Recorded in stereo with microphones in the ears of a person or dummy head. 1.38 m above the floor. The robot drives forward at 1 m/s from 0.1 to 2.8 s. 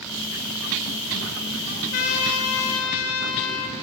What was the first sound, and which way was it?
A trumpet, 75° left (ahead or behind).